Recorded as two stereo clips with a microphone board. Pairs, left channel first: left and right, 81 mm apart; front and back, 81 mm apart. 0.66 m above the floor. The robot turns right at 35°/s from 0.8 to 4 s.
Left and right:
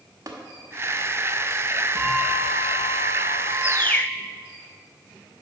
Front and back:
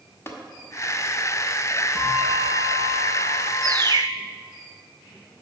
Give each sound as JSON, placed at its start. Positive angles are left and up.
{"t": 0.3, "sound": "tapping", "azimuth_deg": -55, "distance_m": 1.2}
{"t": 1.9, "sound": "a bell", "azimuth_deg": 90, "distance_m": 2.5}
{"t": 3.6, "sound": "a bird", "azimuth_deg": 145, "distance_m": 0.5}